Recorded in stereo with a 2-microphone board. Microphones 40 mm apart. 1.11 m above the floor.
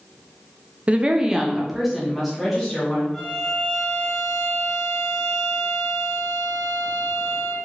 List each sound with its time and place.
0.9 s a woman speaking: 30° right (ahead or behind), 0.5 m; by 3.0 s centre (ahead or behind), 2 m
3.1 s a violin: 15° left (ahead or behind), 1.4 m